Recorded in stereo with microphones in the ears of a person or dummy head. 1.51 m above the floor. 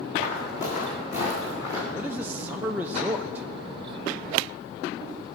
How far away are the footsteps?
About 4 m.